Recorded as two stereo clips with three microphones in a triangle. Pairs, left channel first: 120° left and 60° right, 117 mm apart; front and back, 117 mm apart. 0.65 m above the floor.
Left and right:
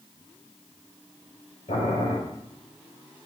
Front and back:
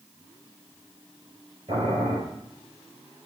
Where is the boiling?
150° left, 5 m.